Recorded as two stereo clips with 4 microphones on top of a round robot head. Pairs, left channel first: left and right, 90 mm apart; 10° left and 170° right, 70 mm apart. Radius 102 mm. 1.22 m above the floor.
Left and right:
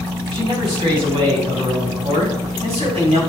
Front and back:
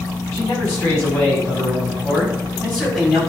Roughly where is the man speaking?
Ahead right.